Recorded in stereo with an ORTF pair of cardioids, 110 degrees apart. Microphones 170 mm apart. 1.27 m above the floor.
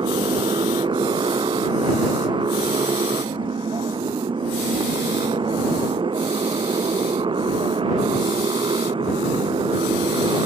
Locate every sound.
0.0 s a motorcycle: 30° right